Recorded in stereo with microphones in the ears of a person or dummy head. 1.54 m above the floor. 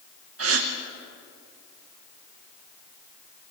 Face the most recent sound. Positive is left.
turn(degrees=-80)